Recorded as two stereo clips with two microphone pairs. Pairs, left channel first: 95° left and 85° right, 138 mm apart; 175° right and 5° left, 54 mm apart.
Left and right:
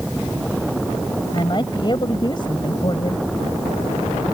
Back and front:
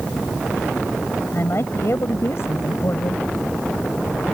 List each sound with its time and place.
1.3 s a woman speaking: 150° left